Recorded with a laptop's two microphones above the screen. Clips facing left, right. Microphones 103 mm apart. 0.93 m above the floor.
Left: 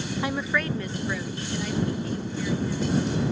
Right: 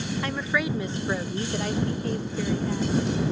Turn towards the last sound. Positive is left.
turn(degrees=-70)  # may be behind; listen again after turning